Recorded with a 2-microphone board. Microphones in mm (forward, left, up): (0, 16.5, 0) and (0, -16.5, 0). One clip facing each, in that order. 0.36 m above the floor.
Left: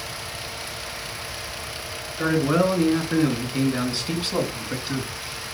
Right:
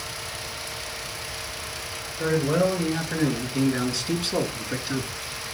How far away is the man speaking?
About 4 m.